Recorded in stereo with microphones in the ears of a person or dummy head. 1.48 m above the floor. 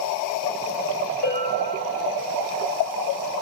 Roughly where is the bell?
Left.